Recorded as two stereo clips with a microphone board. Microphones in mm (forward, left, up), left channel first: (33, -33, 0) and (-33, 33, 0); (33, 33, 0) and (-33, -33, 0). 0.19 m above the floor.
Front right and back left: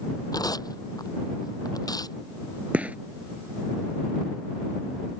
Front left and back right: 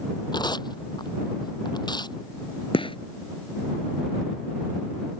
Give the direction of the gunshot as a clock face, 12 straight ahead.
10 o'clock.